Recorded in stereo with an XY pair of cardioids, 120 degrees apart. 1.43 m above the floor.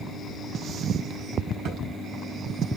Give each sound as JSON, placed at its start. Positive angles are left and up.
{"t": 1.6, "sound": "a thud", "azimuth_deg": -65, "distance_m": 5.0}